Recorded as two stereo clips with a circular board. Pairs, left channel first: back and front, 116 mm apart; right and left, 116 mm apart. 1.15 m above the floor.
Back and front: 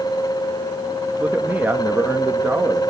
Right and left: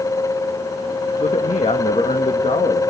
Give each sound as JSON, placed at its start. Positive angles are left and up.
{"t": 1.2, "sound": "a man speaking", "azimuth_deg": -75, "distance_m": 1.1}